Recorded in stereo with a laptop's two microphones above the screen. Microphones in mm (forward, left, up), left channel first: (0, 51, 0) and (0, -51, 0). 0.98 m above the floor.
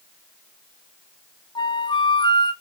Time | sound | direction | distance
1.6 | a flute | 50° left (ahead or behind) | 1.2 m